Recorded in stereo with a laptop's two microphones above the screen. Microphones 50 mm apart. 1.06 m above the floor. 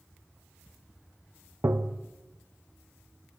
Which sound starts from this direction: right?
Tapping, at 1.6 s.